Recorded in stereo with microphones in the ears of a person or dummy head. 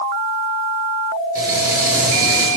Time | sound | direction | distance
1.4 | frying | 15° right (ahead or behind) | 4.5 m